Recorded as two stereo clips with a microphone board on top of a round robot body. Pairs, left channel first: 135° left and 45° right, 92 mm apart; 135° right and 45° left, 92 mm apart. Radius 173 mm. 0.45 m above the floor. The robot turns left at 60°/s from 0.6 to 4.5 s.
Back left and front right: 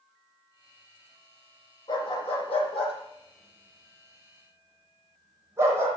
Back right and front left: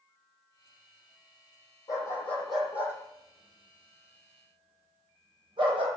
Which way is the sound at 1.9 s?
175° left.